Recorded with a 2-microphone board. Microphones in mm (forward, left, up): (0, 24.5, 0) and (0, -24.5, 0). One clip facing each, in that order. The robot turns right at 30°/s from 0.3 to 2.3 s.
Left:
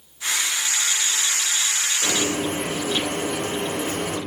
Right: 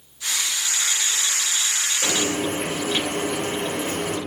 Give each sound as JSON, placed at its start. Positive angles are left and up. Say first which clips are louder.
{"t": 2.0, "sound": "frying", "louder": "right 1 dB", "side_deg": -40, "distance_m": 0.8}